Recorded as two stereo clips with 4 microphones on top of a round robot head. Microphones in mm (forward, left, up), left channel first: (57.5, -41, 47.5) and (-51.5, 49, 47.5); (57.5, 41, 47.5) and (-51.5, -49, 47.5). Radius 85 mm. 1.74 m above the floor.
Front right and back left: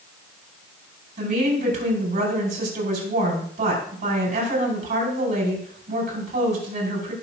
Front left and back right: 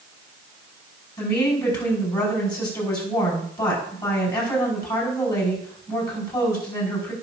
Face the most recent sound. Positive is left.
turn(degrees=105)